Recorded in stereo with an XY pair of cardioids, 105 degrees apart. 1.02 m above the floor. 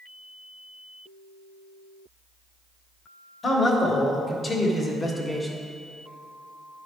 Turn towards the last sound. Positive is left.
turn(degrees=10)